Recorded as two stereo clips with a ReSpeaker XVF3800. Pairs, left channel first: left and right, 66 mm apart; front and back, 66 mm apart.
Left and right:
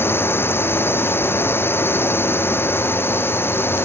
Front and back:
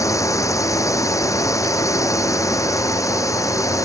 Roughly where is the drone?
Ahead left.